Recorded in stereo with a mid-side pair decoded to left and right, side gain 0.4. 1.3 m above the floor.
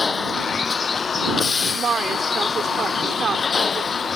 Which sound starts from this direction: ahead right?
A woman speaking, at 1.8 s.